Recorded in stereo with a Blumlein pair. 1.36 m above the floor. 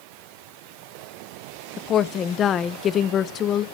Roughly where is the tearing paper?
No tearing paper in this recording.